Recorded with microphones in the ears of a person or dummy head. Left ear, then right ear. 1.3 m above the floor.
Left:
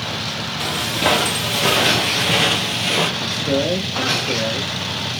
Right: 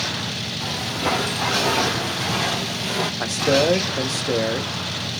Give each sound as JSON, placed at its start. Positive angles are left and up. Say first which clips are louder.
{"t": 0.6, "sound": "footsteps", "louder": "left 6 dB", "side_deg": 55, "distance_m": 2.0}
{"t": 3.2, "sound": "a man speaking", "louder": "right 1 dB", "side_deg": -40, "distance_m": 0.9}